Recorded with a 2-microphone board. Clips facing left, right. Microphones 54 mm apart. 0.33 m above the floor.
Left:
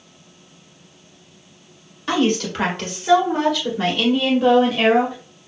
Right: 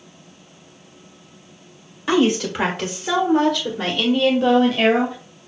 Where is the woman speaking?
10° right (ahead or behind), 1.4 m; by 5.2 s 10° left (ahead or behind), 1.7 m.